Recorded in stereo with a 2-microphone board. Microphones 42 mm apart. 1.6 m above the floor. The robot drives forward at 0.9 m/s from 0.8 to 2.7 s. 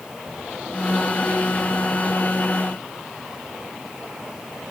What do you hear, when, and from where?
Only background noise.